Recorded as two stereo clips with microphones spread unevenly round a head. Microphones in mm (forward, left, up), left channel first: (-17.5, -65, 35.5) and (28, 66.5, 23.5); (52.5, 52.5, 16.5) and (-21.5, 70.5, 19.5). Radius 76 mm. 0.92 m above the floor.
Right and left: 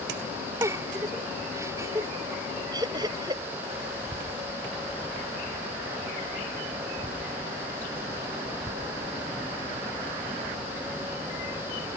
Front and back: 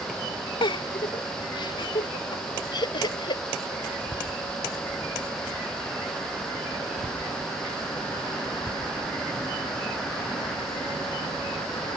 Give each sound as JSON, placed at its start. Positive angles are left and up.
{"t": 0.6, "sound": "a giggle", "azimuth_deg": 0}
{"t": 2.7, "sound": "laughter", "azimuth_deg": 5}